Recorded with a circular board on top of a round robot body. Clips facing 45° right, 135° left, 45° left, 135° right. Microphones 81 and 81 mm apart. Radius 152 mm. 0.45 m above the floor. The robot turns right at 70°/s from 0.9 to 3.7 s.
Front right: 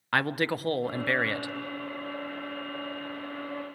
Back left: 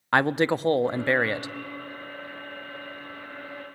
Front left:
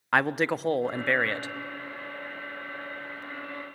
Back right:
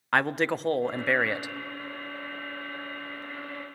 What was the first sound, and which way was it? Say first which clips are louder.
A man speaking: back left 5 dB, front left 1 dB; 130° left.